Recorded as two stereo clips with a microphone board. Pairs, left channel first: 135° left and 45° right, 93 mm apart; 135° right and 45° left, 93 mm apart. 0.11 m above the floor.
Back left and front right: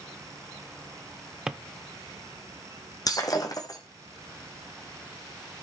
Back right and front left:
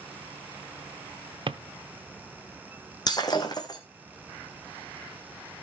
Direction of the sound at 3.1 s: Straight behind.